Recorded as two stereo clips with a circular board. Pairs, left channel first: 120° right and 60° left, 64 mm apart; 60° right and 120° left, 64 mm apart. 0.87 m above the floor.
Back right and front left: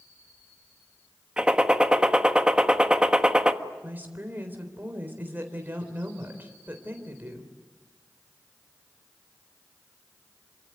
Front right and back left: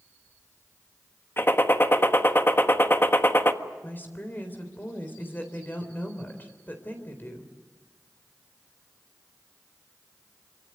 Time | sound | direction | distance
1.4 | a gunshot | 15° right | 1.3 m
3.8 | a woman speaking | straight ahead | 3.5 m